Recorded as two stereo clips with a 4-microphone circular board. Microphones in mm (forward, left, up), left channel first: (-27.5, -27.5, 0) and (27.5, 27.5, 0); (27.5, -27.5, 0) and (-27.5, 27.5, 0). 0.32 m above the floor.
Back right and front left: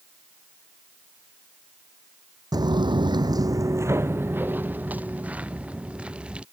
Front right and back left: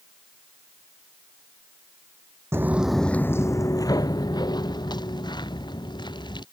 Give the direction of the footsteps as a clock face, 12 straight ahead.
9 o'clock.